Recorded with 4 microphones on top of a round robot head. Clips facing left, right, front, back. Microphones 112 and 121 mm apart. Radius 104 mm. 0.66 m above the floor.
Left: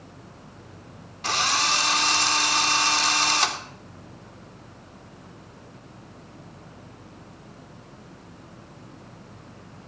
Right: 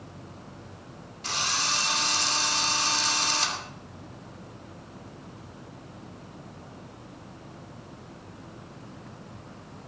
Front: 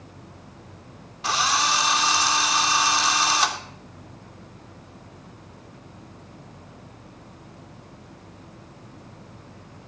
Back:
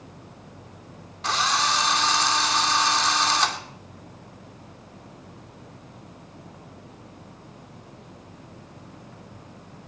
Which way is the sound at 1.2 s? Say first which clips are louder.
Left 6 dB, front 1 dB; 85° left.